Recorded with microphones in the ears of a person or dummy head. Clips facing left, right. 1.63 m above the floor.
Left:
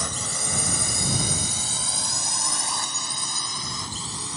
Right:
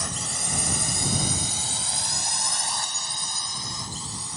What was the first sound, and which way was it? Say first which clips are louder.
A drone: left 2 dB; 65° left (ahead or behind).